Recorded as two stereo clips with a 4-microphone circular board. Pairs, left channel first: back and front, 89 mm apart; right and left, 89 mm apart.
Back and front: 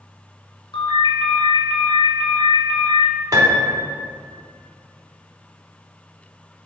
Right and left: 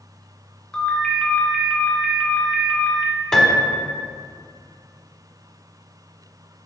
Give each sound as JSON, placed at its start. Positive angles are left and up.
{"t": 0.7, "sound": "a ringtone", "azimuth_deg": -170, "distance_m": 2.0}
{"t": 3.3, "sound": "a piano", "azimuth_deg": -10, "distance_m": 1.0}